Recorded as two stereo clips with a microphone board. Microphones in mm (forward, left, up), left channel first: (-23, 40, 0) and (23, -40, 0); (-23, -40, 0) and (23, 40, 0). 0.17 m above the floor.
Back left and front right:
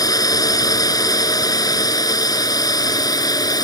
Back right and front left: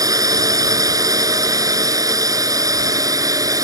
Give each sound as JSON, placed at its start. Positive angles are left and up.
{"t": 0.0, "sound": "a drone", "azimuth_deg": 90}